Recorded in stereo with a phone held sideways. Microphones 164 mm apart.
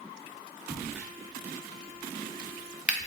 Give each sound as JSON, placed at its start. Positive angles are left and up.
{"t": 0.7, "sound": "a crack", "side_deg": -5, "distance_m": 0.5}